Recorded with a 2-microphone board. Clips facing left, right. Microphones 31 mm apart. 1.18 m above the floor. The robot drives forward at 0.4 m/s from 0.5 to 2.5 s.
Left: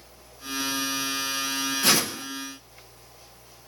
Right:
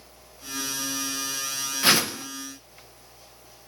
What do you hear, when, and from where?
1.8 s a whoosh: 30° right (ahead or behind), 1.1 m; by 2.2 s 25° right (ahead or behind), 1.3 m